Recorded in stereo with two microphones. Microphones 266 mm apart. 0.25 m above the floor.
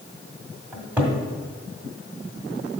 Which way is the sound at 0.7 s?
5° right (ahead or behind).